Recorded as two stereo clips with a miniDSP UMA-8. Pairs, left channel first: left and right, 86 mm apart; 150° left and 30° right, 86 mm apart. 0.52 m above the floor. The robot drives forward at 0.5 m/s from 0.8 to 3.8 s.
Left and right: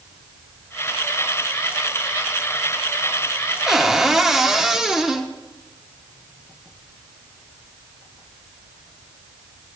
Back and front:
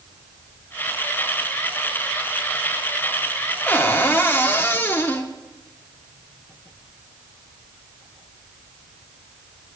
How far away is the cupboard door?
About 0.7 m.